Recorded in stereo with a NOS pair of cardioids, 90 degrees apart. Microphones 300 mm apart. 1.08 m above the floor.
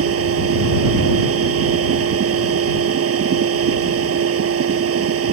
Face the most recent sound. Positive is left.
turn(degrees=-50)